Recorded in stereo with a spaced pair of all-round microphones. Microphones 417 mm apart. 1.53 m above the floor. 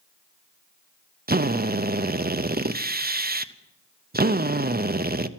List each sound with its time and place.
1.3 s a drill: 25° right (ahead or behind), 0.6 m